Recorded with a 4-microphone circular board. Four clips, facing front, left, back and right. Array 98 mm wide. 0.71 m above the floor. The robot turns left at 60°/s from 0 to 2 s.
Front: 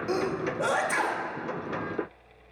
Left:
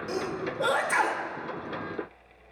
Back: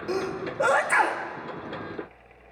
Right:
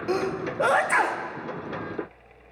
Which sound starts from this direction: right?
A sneeze, at 0.1 s.